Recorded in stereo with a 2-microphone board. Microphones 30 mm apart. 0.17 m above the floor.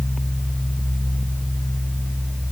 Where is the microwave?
No microwave in this recording.